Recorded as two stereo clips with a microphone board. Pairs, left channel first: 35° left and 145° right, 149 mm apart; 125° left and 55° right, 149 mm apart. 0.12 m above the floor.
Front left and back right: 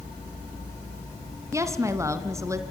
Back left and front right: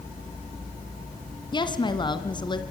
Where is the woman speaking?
155° left, 1.8 m.